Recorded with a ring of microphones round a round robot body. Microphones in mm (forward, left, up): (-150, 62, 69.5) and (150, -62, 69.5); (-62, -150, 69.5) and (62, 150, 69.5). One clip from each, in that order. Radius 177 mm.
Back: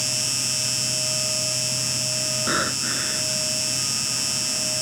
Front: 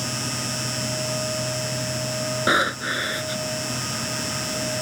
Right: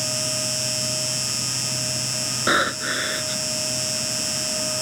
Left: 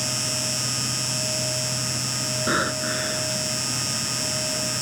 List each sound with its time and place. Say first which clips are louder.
0.0 s an insect: back 3 dB, right 1 dB; 170° left
2.5 s breathing: front 7 dB, right 5 dB; 70° right